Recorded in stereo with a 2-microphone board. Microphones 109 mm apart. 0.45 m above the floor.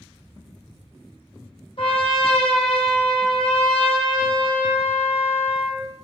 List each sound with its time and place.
1.8 s a trumpet: 55° left (ahead or behind), 0.6 m